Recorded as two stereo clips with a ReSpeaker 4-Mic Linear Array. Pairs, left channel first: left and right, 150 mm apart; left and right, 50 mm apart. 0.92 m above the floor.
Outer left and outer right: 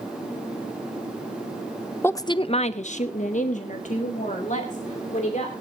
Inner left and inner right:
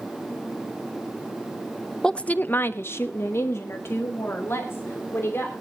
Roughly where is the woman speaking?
Centre.